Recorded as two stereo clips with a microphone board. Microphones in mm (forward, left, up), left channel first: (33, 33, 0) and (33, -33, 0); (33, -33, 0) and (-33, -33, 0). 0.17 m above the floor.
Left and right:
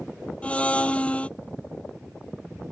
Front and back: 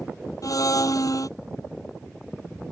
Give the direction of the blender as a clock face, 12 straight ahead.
11 o'clock.